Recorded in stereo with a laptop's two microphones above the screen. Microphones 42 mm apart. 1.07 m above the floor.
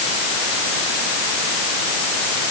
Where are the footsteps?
I don't hear footsteps.